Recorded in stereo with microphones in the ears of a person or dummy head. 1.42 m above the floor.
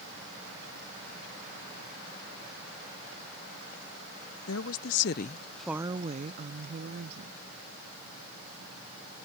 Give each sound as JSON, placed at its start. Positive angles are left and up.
{"t": 4.5, "sound": "a woman speaking", "side_deg": 80}